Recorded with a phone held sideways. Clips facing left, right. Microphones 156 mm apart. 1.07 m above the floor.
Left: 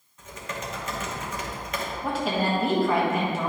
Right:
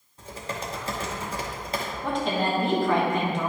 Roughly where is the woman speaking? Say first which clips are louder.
Even; centre.